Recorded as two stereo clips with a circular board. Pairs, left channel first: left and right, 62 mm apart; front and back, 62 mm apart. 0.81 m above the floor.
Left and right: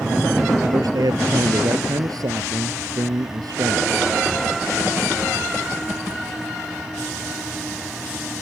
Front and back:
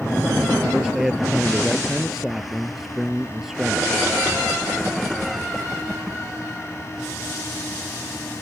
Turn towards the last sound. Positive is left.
turn(degrees=-95)